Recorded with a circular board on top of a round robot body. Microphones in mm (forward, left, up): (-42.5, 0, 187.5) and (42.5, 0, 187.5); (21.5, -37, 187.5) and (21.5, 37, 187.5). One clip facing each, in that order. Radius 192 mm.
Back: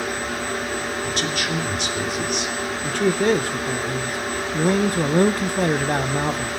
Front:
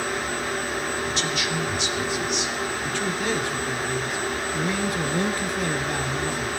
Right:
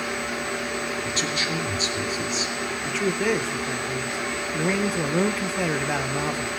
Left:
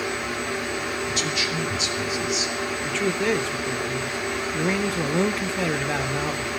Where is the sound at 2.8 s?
175° right, 1.0 m.